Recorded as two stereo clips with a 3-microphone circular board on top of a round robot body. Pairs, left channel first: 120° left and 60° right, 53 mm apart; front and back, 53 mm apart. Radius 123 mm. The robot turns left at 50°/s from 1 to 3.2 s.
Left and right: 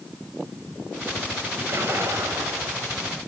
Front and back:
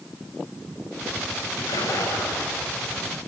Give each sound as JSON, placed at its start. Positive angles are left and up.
{"t": 1.6, "sound": "a splash", "azimuth_deg": -5, "distance_m": 7.0}